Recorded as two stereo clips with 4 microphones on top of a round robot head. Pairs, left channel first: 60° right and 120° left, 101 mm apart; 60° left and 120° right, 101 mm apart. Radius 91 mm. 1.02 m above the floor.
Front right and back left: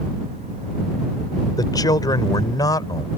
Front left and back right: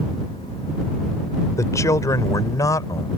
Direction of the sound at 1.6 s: 5° right.